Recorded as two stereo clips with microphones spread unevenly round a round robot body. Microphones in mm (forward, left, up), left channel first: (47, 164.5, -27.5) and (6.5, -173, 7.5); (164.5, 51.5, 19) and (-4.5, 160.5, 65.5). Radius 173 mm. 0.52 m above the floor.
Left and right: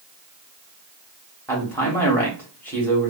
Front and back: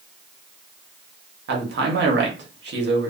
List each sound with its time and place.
1.5 s a man speaking: 160° left, 0.9 m